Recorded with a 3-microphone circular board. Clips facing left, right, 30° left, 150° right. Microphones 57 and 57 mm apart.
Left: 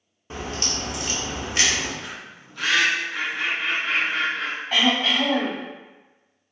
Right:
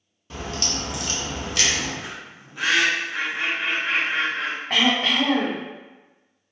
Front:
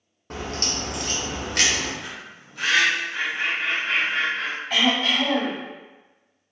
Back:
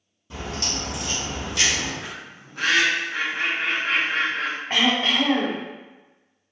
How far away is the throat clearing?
About 0.7 m.